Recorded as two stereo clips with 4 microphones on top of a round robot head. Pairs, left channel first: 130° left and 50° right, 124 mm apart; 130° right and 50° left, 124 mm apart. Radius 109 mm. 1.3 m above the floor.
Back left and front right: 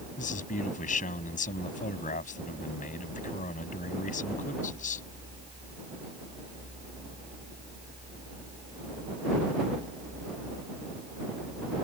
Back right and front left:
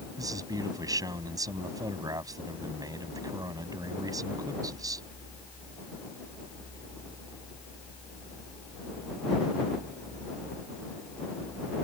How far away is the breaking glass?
No breaking glass in this recording.